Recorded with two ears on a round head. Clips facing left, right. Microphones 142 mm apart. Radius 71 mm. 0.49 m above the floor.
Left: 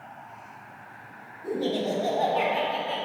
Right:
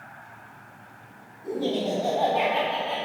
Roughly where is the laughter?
Centre.